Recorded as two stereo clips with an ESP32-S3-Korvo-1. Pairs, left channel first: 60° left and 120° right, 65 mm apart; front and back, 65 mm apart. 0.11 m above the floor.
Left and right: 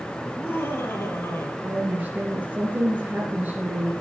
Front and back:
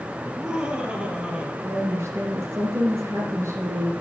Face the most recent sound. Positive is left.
turn(degrees=-170)